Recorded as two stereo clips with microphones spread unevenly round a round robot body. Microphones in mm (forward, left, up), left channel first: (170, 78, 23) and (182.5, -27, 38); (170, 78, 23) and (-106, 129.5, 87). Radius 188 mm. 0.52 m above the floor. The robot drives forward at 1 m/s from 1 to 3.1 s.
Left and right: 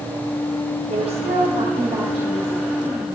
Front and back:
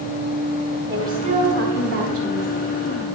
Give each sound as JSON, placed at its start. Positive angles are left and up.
{"t": 0.9, "sound": "a woman speaking", "azimuth_deg": -105, "distance_m": 1.6}